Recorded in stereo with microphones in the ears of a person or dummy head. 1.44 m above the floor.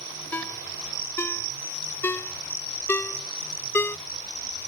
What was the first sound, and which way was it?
A ringtone, 15° left (ahead or behind).